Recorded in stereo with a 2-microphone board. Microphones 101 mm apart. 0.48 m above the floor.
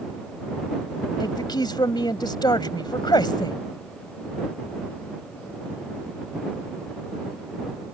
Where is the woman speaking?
45° left (ahead or behind).